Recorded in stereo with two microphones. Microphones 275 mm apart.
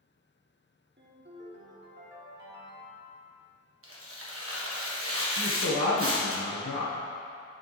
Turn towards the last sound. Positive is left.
turn(degrees=75)  # may be behind; listen again after turning